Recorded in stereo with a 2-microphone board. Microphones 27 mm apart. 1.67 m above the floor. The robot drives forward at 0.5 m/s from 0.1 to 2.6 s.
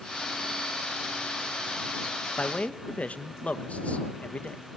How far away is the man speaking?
About 1.2 m.